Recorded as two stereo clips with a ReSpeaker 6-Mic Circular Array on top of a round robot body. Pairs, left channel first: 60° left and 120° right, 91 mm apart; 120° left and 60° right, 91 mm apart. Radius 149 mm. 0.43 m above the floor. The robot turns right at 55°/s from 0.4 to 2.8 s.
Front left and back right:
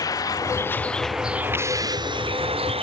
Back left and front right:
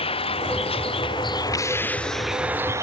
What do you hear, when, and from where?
0.0 s a vehicle: 110° left; by 2.8 s 120° right